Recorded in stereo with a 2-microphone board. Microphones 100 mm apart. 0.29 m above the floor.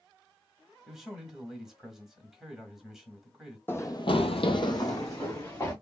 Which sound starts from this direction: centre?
A man speaking, at 0.9 s.